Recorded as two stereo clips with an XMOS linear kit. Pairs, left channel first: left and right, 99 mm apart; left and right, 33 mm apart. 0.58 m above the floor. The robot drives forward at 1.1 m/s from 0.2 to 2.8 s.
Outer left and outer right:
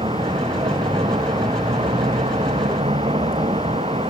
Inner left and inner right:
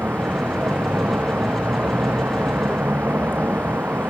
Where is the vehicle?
70° right (ahead or behind).